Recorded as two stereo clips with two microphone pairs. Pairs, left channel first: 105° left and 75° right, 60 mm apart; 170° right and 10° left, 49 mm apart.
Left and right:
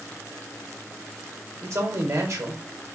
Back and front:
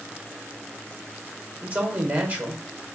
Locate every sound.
1.6 s a man speaking: 50° right, 1.7 m